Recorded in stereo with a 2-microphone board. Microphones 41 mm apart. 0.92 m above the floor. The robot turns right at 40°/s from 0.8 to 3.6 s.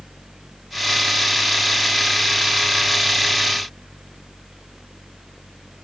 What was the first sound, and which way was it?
Only background noise.